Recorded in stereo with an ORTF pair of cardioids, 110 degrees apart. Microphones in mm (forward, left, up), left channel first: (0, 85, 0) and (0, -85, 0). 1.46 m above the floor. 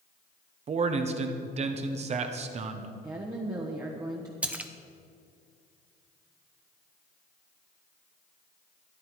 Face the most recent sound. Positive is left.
turn(degrees=-10)